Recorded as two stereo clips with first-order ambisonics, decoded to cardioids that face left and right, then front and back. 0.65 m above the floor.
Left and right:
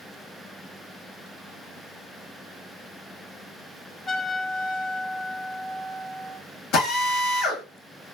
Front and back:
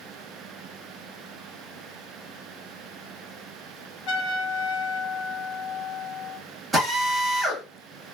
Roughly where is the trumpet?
Ahead.